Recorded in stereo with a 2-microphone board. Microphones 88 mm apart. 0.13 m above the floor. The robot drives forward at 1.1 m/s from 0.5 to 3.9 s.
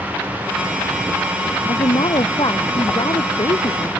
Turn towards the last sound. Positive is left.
turn(degrees=50)  # may be behind; listen again after turning